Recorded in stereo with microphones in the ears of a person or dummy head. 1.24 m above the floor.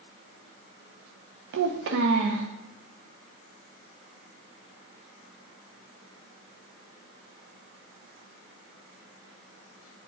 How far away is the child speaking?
About 0.6 m.